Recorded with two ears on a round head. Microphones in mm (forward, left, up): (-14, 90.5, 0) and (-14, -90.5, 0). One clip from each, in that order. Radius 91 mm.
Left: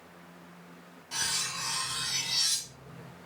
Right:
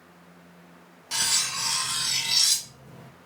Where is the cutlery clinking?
55° right (ahead or behind), 0.6 m.